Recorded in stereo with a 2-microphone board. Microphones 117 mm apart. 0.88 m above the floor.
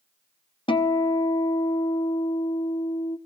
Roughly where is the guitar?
Left.